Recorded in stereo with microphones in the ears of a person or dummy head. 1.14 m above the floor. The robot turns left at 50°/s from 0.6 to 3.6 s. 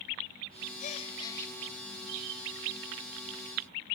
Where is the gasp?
45° left, 0.7 m; by 1.6 s 5° left, 0.7 m.